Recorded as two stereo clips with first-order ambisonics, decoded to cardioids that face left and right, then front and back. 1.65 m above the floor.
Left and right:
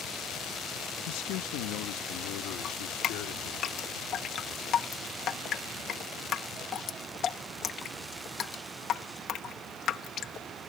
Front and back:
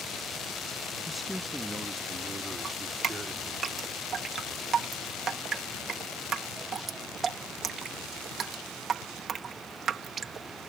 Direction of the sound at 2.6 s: 130° left.